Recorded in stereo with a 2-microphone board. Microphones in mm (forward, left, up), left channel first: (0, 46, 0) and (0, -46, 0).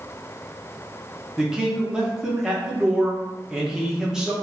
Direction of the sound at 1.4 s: 5° right (ahead or behind).